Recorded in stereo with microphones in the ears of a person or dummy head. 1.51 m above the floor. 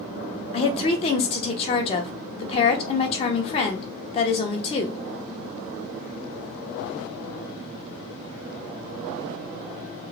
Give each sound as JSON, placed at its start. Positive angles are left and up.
{"t": 0.5, "sound": "a woman speaking", "side_deg": 30, "distance_m": 0.7}